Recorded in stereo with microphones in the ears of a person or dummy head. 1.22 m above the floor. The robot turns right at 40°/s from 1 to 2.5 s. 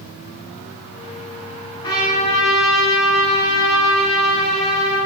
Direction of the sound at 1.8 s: 25° left (ahead or behind).